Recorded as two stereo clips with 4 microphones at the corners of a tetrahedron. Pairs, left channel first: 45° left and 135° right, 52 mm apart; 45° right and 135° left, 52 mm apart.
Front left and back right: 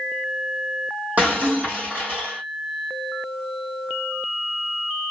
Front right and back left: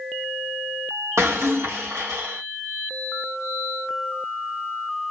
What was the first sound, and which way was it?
Breaking glass, 165° left.